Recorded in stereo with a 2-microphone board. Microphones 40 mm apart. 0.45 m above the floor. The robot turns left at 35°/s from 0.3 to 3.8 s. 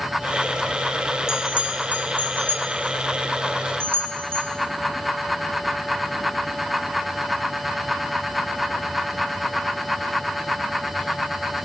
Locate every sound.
1.3 s a bell: 15° right (ahead or behind), 3.5 m; by 4.5 s 75° right (ahead or behind), 3.5 m